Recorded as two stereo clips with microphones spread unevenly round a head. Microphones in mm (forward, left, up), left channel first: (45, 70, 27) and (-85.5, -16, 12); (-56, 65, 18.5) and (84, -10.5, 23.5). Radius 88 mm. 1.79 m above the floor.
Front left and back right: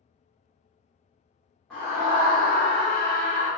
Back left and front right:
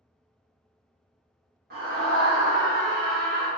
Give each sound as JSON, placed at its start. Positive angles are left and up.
{"t": 1.7, "sound": "a scream", "azimuth_deg": -50, "distance_m": 0.9}